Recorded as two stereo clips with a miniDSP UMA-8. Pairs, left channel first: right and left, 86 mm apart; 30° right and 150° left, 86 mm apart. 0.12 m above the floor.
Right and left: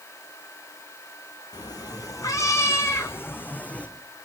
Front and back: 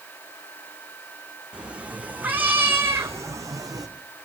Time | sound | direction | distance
1.5 | a cat meowing | 130° right | 3 m